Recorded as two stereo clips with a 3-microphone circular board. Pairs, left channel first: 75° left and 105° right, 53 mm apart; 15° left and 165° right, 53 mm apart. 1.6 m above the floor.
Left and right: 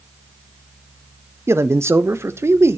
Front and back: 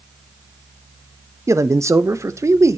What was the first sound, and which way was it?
A man speaking, 140° right.